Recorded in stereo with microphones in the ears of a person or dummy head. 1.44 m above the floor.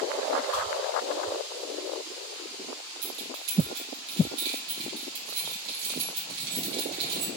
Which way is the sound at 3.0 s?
60° right (ahead or behind).